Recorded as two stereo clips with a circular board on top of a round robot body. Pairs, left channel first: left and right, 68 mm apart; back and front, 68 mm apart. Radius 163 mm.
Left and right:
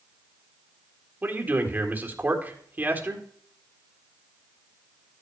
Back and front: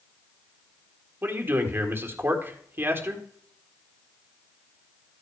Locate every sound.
1.2 s a man speaking: 40° right, 1.9 m